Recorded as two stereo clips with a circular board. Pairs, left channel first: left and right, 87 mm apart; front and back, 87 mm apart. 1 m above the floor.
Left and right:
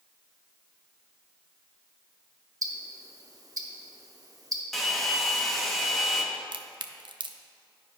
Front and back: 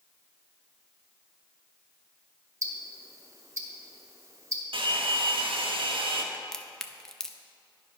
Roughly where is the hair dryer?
Behind.